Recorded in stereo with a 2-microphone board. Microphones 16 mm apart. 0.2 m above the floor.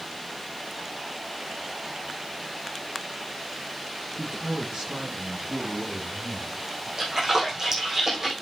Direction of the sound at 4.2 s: 60° right (ahead or behind).